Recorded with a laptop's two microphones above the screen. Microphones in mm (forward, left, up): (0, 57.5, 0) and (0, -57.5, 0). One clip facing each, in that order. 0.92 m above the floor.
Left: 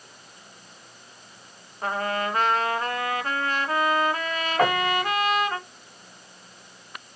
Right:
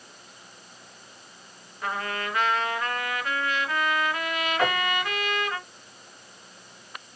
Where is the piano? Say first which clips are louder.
Left 5 dB; 45° left (ahead or behind), 0.9 m.